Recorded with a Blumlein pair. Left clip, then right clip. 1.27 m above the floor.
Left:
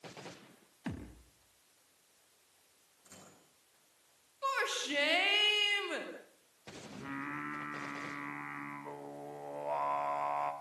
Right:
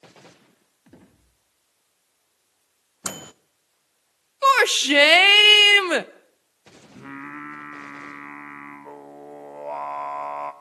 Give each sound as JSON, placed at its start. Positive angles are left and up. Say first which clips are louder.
{"t": 0.9, "sound": "a thud", "louder": "left 8 dB", "azimuth_deg": 35, "distance_m": 4.5}
{"t": 3.0, "sound": "a microwave", "louder": "right 23 dB", "azimuth_deg": -45, "distance_m": 0.8}
{"t": 4.4, "sound": "a shout", "louder": "right 17 dB", "azimuth_deg": -50, "distance_m": 0.8}
{"t": 7.0, "sound": "singing", "louder": "right 5 dB", "azimuth_deg": -15, "distance_m": 1.5}